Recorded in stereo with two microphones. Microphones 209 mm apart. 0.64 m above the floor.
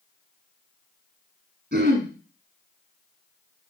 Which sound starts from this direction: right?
Throat clearing, at 1.7 s.